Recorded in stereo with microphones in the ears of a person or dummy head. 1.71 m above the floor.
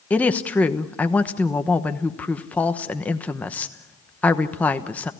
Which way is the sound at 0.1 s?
5° left (ahead or behind).